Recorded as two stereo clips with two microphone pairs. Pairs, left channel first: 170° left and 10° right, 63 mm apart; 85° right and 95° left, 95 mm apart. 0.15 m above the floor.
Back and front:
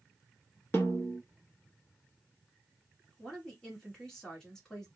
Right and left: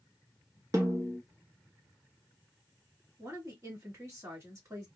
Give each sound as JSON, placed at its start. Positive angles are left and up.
{"t": 0.7, "sound": "a snare drum", "azimuth_deg": 130, "distance_m": 1.0}
{"t": 3.2, "sound": "a woman speaking", "azimuth_deg": 100, "distance_m": 1.8}